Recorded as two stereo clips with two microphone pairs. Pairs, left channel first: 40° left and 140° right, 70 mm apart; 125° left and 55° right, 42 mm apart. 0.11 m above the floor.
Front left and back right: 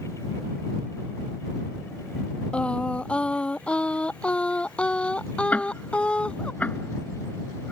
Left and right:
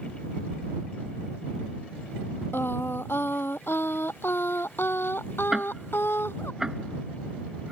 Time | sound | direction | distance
2.5 | singing | 115° left | ?
5.5 | ticking | 5° left | ?